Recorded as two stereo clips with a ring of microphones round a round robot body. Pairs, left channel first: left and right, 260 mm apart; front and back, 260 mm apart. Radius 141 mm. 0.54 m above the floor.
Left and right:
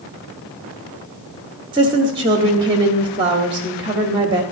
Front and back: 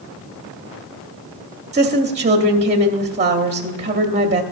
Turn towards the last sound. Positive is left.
turn(degrees=-145)